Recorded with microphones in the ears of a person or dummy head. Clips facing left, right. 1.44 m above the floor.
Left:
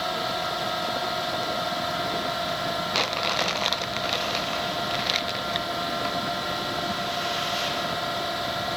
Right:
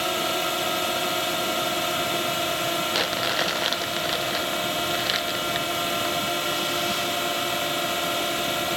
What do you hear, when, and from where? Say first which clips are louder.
0.0 s a drone: right 2 dB; 40° right (ahead or behind)
2.9 s crumpling: right 1 dB; 10° right (ahead or behind)